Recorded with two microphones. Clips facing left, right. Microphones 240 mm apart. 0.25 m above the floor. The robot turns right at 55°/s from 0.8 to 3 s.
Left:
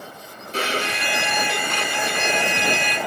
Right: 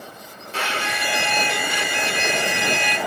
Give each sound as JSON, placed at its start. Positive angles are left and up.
{"t": 0.5, "sound": "a violin", "azimuth_deg": 140, "distance_m": 1.0}